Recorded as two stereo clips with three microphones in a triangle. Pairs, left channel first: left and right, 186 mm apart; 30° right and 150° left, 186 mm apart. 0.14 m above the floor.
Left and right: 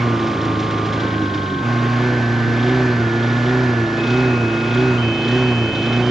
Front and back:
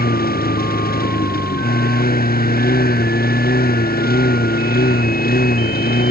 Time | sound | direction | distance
0.0 | a lawn mower | straight ahead | ?